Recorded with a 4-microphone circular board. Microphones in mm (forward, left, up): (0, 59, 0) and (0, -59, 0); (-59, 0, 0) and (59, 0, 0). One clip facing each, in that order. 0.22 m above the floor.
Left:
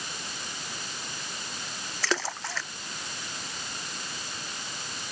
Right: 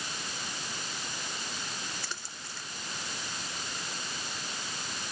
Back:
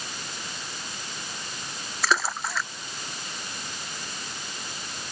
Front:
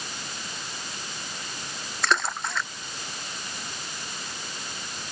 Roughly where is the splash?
Left.